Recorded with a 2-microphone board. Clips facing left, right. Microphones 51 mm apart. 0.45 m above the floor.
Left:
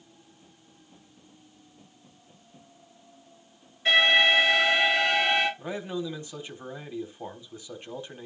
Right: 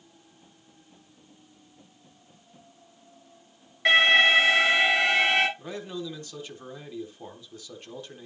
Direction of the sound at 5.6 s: 15° left (ahead or behind).